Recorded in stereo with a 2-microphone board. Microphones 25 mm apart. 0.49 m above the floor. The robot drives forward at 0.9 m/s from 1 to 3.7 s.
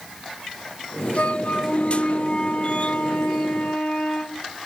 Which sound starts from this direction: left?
A flute, at 1.1 s.